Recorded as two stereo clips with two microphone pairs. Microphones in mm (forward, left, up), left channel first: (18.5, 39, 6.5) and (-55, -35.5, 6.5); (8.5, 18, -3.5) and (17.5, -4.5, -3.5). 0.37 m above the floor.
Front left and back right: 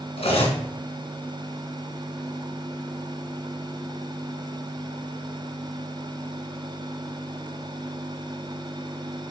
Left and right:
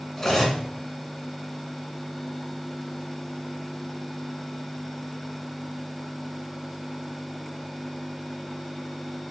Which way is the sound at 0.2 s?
45° left.